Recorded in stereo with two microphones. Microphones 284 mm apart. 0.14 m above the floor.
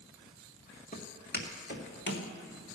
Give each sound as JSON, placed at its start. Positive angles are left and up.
{"t": 0.9, "sound": "footsteps", "side_deg": 30, "distance_m": 2.5}